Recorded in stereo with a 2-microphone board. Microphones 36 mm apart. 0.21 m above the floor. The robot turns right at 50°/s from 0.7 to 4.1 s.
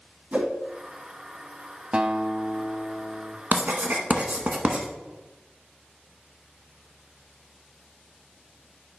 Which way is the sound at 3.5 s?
55° right (ahead or behind).